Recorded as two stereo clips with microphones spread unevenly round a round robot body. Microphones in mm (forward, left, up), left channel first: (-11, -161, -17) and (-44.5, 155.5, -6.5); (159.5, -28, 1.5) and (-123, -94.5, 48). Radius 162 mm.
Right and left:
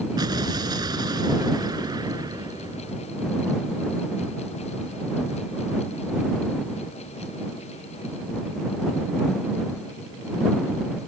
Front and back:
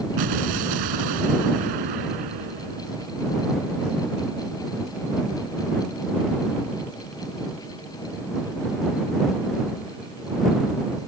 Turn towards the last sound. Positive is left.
turn(degrees=175)